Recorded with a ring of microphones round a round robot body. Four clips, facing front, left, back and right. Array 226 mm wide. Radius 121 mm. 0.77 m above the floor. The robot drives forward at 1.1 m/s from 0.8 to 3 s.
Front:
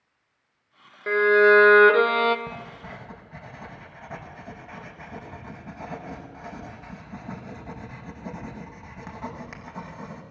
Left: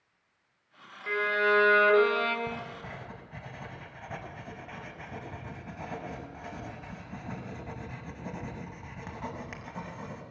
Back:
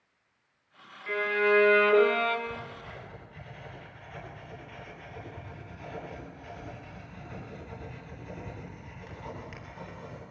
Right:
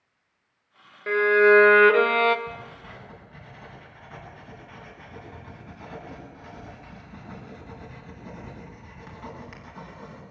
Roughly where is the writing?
Ahead left.